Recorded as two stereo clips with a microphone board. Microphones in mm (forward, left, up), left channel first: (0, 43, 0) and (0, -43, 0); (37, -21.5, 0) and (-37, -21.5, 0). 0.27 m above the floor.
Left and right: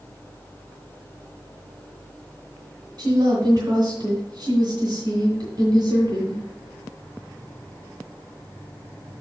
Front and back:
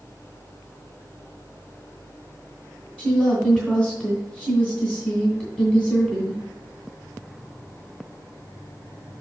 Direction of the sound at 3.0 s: 100° right.